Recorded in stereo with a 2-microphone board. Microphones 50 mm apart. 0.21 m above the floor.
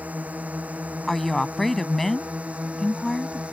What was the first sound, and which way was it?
A drone, 30° right (ahead or behind).